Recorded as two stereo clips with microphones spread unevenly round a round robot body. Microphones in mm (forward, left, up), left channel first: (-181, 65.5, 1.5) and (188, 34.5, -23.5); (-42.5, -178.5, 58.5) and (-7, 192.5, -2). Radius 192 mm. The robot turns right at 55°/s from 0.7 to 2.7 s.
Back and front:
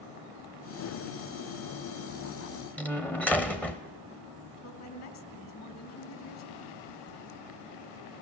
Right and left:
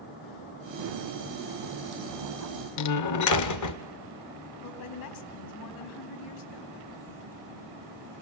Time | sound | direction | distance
2.8 | a door slam | 95° right | 0.9 m
4.6 | a woman speaking | 125° right | 3 m